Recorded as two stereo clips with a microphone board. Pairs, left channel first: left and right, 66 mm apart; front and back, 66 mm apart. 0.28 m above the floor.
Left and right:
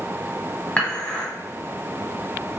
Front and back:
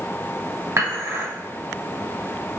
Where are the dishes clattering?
150° left, 1.4 m.